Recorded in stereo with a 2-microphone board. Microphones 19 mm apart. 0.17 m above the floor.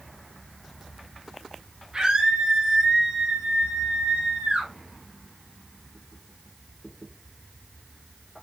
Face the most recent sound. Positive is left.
turn(degrees=-65)  # may be behind; listen again after turning